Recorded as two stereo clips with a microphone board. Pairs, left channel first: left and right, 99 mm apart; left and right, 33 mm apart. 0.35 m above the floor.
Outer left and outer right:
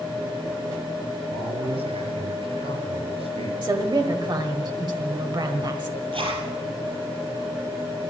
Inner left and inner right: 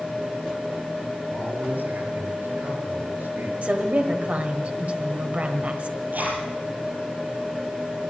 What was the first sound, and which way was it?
A man speaking, 80° right.